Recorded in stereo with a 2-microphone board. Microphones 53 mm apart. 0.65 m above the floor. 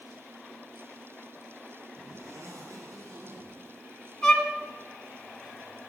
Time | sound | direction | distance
2.0 | a zipper | 75° right (ahead or behind) | 5 m
4.2 | a violin | 10° left (ahead or behind) | 1.4 m